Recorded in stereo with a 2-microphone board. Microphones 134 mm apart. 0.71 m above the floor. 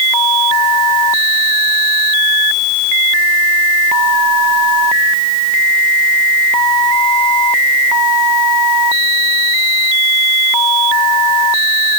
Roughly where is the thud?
No thud in this recording.